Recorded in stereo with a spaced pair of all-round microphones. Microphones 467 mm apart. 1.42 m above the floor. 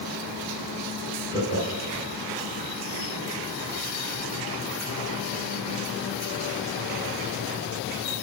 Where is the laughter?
30° left (ahead or behind), 4 m.